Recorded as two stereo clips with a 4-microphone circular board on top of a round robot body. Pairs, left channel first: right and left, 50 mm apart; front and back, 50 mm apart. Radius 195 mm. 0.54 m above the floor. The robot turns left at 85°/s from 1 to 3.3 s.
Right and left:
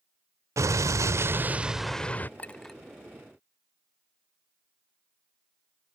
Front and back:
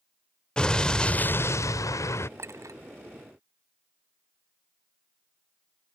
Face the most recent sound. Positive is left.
turn(degrees=135)